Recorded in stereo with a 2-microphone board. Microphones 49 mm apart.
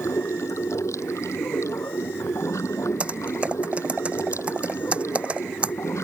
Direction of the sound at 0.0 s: 75° left (ahead or behind).